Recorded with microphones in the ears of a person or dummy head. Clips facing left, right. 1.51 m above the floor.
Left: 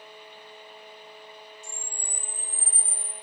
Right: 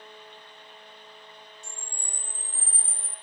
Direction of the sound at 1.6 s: 55° right (ahead or behind).